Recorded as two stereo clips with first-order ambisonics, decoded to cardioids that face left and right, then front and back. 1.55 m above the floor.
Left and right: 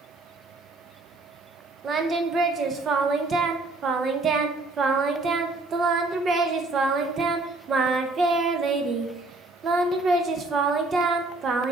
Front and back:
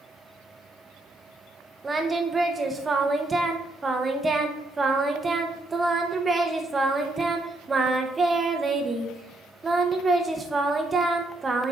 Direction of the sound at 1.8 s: 120° right.